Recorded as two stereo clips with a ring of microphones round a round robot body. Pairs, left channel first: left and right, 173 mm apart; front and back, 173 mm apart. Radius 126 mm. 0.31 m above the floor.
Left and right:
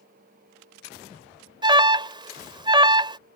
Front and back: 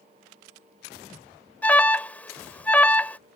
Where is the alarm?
70° right.